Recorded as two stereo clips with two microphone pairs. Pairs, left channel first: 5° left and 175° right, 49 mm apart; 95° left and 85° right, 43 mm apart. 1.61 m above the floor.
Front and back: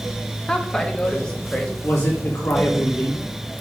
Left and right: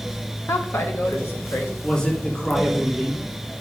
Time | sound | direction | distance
0.5 | a woman speaking | 80° left | 1.4 m
1.8 | a man speaking | 25° left | 3.5 m